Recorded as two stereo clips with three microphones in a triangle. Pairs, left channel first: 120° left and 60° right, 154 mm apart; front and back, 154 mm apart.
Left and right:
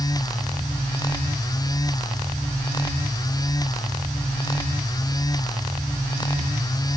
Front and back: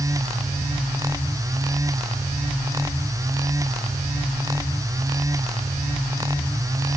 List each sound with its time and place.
Only background noise.